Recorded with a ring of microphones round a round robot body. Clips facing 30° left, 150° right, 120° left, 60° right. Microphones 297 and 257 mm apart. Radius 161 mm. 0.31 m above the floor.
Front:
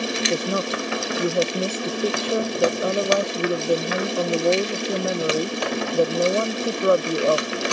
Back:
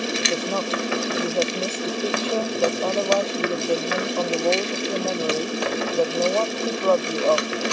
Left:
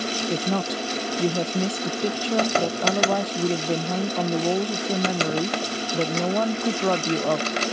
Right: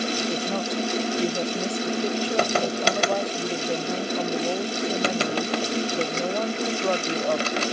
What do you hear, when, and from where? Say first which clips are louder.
0.3 s a woman speaking: front 3 dB, left 1 dB; 105° left